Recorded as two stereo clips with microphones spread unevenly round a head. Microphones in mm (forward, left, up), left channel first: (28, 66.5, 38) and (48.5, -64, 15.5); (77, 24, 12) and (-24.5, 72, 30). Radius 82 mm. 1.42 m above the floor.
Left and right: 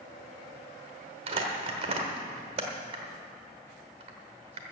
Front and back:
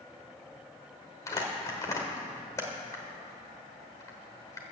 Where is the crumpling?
85° right, 1.2 m.